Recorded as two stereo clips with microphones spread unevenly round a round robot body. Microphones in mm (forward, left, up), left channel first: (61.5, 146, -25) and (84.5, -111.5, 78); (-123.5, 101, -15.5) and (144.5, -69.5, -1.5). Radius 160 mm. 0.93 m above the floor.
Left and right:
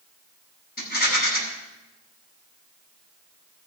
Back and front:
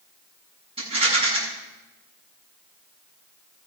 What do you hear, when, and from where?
0.8 s a rattle: 40° left, 7.5 m